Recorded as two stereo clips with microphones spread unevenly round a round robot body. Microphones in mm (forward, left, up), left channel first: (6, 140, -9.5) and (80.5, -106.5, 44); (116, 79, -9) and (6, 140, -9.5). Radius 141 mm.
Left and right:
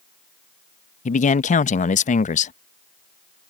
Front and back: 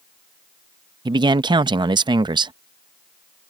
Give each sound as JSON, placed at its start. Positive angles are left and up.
{"t": 1.1, "sound": "a man speaking", "azimuth_deg": 125}